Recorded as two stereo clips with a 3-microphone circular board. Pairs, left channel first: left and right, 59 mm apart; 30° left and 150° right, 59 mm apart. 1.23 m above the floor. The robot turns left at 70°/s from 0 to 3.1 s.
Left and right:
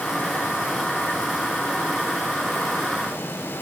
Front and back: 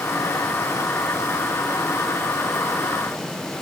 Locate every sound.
Only background noise.